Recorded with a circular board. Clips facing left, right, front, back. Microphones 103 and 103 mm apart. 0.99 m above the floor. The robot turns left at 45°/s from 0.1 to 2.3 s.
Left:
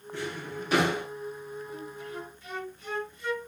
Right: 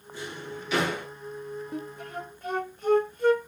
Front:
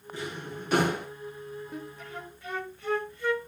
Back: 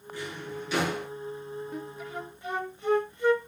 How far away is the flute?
About 1.2 m.